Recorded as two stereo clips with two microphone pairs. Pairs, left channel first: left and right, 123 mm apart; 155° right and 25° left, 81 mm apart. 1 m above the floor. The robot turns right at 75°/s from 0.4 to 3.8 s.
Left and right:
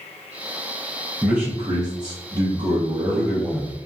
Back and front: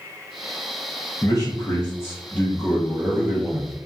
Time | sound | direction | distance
1.2 | a man speaking | 170° right | 0.8 m